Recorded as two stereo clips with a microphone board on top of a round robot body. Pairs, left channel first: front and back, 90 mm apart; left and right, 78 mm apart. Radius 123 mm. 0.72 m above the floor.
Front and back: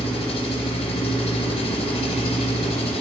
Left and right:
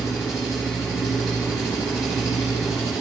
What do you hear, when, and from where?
0.0 s an engine running: straight ahead, 1.2 m